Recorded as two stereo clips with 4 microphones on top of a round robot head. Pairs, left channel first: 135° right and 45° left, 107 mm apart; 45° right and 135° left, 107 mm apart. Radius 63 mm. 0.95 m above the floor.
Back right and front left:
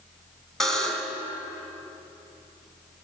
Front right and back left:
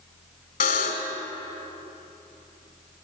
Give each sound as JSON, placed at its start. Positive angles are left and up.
{"t": 0.6, "sound": "a buzzer", "azimuth_deg": -45, "distance_m": 1.6}